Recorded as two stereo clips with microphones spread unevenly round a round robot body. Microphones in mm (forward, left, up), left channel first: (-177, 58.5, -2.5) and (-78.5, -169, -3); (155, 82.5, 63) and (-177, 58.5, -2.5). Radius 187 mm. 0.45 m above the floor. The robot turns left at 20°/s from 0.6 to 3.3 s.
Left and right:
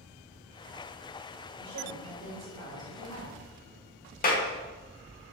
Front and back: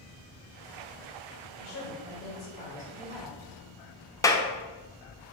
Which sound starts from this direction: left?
A clap, at 4.2 s.